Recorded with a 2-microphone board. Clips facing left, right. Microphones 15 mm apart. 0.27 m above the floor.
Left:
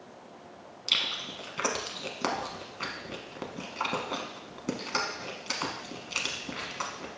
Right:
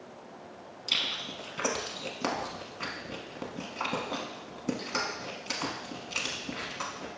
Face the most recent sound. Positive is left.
turn(degrees=20)  # may be behind; listen again after turning